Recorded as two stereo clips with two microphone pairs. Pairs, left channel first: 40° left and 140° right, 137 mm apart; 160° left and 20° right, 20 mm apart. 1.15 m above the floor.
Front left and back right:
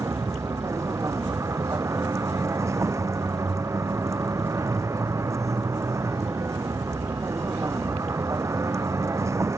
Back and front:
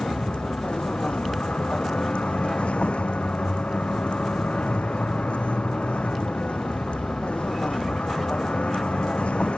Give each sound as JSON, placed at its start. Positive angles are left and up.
{"t": 0.0, "sound": "a vehicle", "azimuth_deg": 155}